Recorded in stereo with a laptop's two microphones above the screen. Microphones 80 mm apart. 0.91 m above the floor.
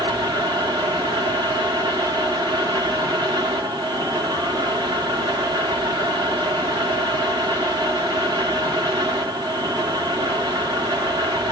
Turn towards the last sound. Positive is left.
turn(degrees=-65)  # may be behind; listen again after turning